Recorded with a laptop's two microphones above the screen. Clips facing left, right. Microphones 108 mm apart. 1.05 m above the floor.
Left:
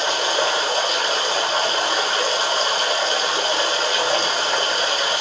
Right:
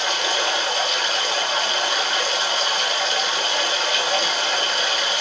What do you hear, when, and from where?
0.0 s running water: 35° left (ahead or behind), 0.8 m